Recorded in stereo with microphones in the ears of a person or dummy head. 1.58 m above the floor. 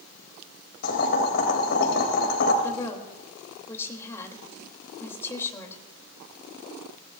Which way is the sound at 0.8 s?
55° left (ahead or behind).